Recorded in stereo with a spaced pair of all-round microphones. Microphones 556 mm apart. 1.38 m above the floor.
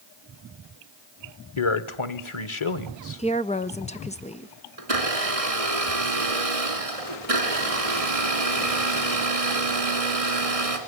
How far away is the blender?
About 3 m.